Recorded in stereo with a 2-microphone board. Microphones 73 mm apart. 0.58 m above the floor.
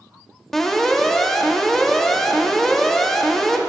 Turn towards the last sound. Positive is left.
turn(degrees=5)  # may be behind; listen again after turning